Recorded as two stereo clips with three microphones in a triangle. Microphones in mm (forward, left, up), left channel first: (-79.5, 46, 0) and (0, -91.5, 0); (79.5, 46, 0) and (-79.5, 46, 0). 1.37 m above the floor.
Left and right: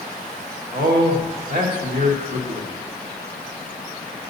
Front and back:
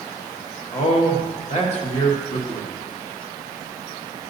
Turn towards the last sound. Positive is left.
turn(degrees=-45)